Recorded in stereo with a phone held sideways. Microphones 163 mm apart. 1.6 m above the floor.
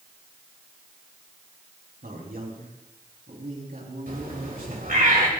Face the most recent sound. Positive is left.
turn(degrees=-70)  # may be behind; listen again after turning